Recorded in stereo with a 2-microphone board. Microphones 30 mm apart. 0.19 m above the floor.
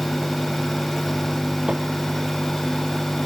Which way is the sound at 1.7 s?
30° right (ahead or behind).